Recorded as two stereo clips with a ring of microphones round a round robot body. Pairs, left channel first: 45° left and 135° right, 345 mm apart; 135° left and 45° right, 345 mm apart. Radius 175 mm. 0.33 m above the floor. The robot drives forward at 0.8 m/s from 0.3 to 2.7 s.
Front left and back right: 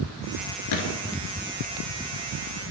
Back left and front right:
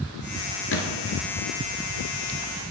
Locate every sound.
0.7 s a gunshot: 80° left, 0.9 m; by 1.2 s 105° left, 0.9 m